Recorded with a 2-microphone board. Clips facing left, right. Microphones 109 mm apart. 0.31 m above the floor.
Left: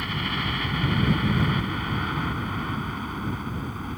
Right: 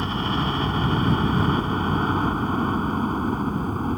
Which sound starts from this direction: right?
A helicopter, at 0.0 s.